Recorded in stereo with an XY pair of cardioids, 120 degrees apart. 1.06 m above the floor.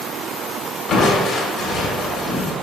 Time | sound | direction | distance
0.9 | crushing | 50° left | 1.5 m